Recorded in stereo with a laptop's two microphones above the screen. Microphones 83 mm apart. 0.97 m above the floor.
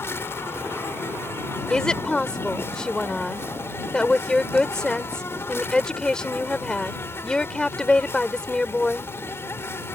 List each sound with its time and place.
0.0 s an insect: 30° left (ahead or behind)
1.7 s a woman speaking: 10° left (ahead or behind)